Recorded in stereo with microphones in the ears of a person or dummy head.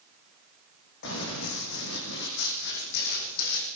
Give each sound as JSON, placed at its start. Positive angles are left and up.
{"t": 1.0, "sound": "running footsteps", "side_deg": 70, "distance_m": 6.5}